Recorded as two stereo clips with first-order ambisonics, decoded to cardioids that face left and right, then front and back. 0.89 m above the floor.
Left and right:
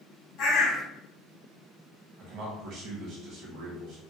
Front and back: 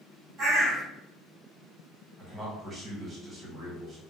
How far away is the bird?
About 1.3 m.